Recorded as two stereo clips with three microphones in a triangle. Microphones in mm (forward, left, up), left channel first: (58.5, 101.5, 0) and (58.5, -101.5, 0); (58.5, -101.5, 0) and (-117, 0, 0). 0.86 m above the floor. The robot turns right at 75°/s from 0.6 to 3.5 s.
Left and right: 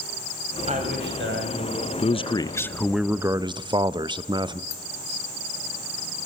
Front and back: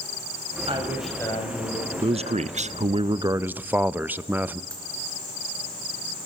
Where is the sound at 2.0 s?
115° left, 0.6 m; by 4.6 s 135° right, 0.6 m.